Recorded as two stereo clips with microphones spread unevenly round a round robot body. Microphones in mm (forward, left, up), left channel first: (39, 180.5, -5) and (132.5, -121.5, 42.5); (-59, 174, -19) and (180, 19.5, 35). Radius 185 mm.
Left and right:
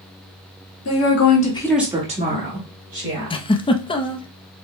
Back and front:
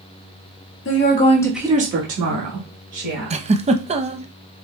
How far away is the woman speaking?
About 1.6 m.